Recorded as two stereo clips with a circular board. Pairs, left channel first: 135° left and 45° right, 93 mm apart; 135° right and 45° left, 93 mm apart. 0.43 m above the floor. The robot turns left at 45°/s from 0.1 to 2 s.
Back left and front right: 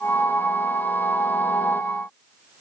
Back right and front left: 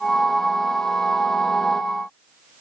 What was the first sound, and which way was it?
Only background noise.